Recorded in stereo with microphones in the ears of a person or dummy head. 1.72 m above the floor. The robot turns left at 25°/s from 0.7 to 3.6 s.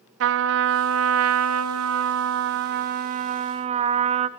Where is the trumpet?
70° right, 0.6 m; by 4.3 s 145° right, 0.6 m.